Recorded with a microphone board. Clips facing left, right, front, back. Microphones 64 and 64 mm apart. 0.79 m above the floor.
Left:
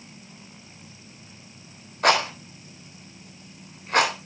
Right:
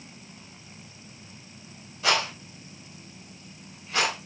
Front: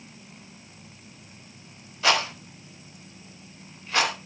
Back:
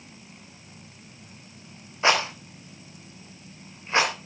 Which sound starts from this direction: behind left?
A rattle, at 2.0 s.